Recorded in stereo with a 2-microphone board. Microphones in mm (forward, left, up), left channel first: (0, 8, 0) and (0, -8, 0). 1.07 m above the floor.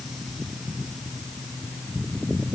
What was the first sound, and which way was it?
Only background noise.